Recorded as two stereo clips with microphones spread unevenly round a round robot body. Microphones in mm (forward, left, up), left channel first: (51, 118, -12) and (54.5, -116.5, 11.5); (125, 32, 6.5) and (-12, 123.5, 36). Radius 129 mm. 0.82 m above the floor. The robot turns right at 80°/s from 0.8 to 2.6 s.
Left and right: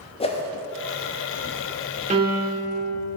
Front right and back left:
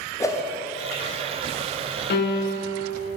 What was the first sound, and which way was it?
A whoosh, 30° left.